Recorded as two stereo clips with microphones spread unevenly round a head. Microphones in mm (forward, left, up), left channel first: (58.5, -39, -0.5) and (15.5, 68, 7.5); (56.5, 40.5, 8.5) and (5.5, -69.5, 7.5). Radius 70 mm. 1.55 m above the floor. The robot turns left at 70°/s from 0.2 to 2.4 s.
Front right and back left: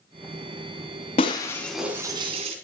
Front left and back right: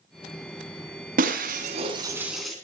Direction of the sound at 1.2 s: 120° right.